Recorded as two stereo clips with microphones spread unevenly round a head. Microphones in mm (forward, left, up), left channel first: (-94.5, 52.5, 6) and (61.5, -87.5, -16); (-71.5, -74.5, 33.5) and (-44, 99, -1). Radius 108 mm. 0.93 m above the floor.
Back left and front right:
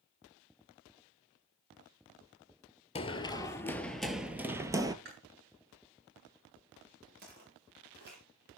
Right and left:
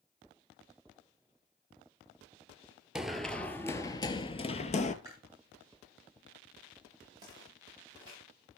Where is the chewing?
5° left, 7.5 m.